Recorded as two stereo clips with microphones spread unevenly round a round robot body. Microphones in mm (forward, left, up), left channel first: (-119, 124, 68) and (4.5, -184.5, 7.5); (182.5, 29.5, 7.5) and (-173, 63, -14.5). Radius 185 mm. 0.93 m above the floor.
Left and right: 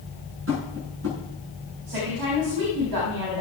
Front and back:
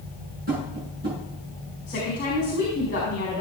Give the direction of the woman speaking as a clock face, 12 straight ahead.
2 o'clock.